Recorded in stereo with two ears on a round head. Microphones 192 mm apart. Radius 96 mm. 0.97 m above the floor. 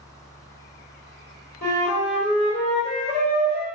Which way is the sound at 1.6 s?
35° left (ahead or behind).